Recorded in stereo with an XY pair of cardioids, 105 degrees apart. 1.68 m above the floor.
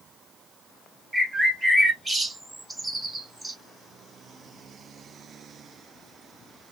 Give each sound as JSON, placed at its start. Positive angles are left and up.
{"t": 1.1, "sound": "a bird", "azimuth_deg": -15, "distance_m": 1.5}